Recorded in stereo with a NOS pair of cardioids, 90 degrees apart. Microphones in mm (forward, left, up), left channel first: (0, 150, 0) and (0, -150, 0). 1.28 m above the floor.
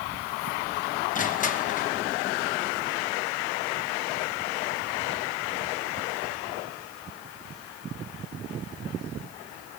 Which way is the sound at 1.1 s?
25° left.